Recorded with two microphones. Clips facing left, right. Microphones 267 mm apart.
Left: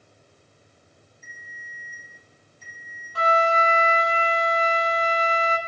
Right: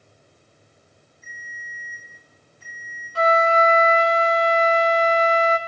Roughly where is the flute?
Right.